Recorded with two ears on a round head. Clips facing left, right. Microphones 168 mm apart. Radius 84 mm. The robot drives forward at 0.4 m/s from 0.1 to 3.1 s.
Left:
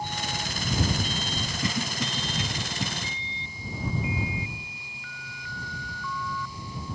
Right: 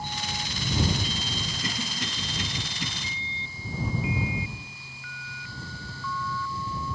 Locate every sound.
1.6 s a cough: 70° left (ahead or behind), 3 m; by 2.9 s 75° left (ahead or behind), 3 m